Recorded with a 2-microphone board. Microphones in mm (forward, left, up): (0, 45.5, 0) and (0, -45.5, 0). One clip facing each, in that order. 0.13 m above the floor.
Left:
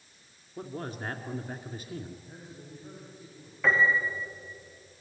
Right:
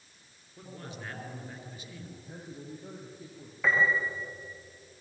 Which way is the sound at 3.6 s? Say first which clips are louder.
Left 2 dB; centre (ahead or behind).